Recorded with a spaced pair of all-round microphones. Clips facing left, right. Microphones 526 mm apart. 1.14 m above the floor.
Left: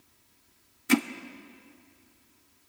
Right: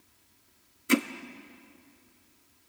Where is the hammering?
15° left (ahead or behind), 0.7 m.